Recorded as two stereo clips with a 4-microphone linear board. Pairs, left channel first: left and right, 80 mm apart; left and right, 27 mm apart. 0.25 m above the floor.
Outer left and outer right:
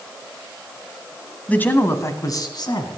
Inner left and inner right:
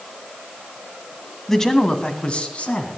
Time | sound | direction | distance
1.5 | a man speaking | 20° left (ahead or behind) | 1.7 m